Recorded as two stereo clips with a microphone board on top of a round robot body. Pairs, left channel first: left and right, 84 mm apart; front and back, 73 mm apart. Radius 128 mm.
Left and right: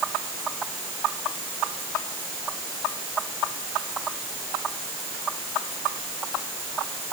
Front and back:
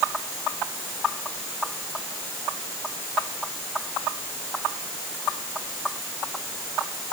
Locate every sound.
Only background noise.